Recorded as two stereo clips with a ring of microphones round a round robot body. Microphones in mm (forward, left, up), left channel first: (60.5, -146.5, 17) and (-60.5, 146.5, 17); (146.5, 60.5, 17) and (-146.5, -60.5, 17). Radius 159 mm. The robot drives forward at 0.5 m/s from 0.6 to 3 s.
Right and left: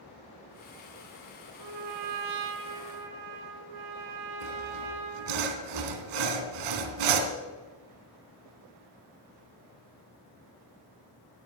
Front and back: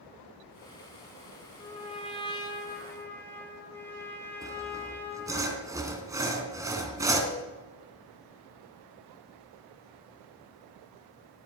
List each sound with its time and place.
1.6 s a trumpet: 90° left, 2.5 m; by 5.4 s 105° left, 2.5 m
4.4 s sawing: 120° left, 2 m